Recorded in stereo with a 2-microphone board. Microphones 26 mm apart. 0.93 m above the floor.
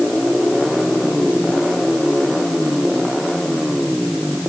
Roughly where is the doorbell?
I don't hear a doorbell.